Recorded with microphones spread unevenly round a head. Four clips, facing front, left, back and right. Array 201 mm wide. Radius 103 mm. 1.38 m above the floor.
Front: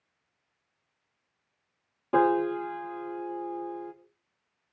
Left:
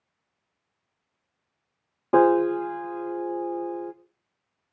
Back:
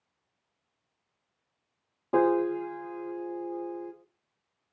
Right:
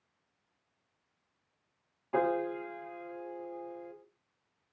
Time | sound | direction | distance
2.1 | a piano | 90° left | 1.6 m